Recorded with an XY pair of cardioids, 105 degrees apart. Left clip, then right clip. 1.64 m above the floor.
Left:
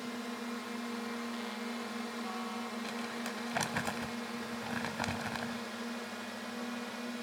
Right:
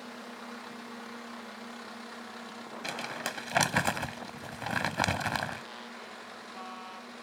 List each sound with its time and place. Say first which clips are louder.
0.0 s a drone: left 2 dB; 35° left; by 7.2 s 60° left
2.8 s crumpling: right 4 dB; 55° right